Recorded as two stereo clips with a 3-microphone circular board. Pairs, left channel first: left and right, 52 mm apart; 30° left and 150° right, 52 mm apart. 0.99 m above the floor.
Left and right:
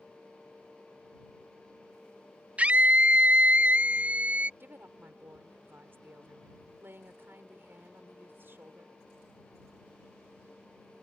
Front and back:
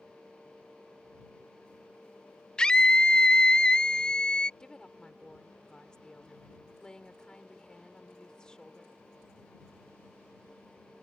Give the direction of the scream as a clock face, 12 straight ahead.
1 o'clock.